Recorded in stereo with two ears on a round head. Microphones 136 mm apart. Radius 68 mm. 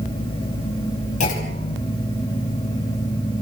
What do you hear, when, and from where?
1.2 s a clunk: 55° left (ahead or behind), 5.5 m